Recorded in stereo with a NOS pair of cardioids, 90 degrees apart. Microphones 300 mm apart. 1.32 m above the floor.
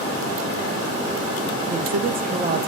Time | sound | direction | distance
1.7 | a woman speaking | 30° right | 0.5 m